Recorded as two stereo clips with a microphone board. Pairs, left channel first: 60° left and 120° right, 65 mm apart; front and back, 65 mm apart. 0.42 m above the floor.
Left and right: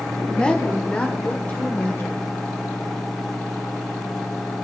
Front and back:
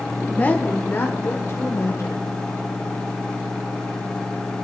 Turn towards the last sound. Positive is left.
turn(degrees=0)